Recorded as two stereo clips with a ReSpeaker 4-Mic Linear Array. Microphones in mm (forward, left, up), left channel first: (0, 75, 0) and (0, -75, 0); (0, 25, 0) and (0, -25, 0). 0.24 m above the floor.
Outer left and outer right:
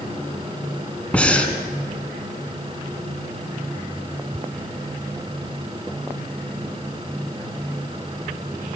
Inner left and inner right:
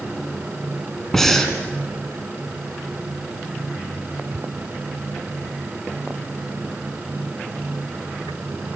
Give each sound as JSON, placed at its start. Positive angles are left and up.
{"t": 1.1, "sound": "breathing", "side_deg": 10, "distance_m": 3.0}